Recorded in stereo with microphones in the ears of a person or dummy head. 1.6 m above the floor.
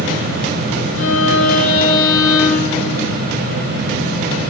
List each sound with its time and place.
1.0 s a violin: 80° left, 8 m